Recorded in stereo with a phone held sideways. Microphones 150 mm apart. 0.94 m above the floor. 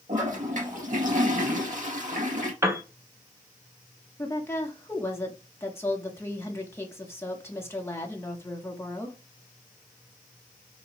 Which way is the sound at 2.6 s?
20° right (ahead or behind).